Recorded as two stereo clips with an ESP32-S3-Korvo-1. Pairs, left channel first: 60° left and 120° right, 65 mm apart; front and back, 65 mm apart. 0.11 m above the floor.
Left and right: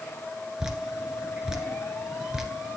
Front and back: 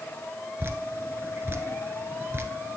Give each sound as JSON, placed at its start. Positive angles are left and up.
{"t": 0.6, "sound": "dripping", "azimuth_deg": 165, "distance_m": 1.3}